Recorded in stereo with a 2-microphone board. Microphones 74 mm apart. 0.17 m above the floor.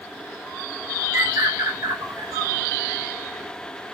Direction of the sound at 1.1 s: 50° right (ahead or behind).